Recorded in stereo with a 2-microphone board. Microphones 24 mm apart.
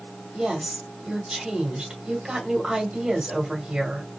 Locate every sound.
0.3 s a woman speaking: 20° right (ahead or behind), 1.5 m